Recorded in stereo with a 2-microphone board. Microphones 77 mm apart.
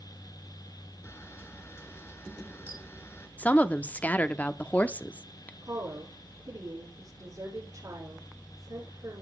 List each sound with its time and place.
1.0 s a camera shutter: 30° left (ahead or behind), 1.6 m
3.4 s a woman speaking: 20° left (ahead or behind), 0.6 m
5.6 s a woman speaking: 45° right (ahead or behind), 8 m